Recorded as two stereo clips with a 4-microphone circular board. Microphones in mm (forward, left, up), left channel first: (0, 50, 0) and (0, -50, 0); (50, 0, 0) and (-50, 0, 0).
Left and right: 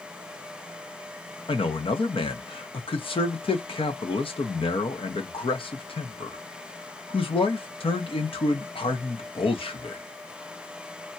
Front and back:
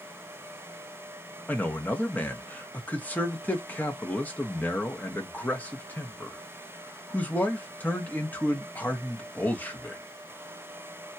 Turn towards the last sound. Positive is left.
turn(degrees=75)